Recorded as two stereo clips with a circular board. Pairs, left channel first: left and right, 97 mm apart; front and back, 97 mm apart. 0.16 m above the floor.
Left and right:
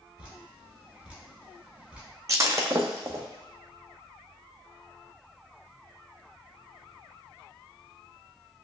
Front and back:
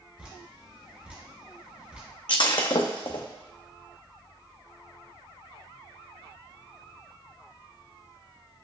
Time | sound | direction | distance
0.2 | dripping | 140° right | 1.3 m
2.3 | breaking glass | 35° right | 0.6 m